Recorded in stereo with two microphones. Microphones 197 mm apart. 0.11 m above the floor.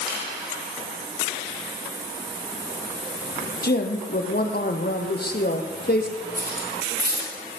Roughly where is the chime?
I don't hear a chime.